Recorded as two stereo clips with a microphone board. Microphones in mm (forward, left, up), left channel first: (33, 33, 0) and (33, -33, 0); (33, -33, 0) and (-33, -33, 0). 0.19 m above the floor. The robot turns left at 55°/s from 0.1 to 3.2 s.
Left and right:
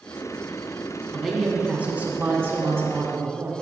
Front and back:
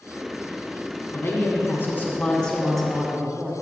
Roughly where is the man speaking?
Ahead.